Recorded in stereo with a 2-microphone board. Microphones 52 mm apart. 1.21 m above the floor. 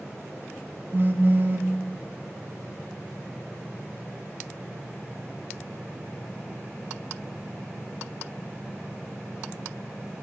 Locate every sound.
0.9 s a phone buzzing: 40° right (ahead or behind), 0.6 m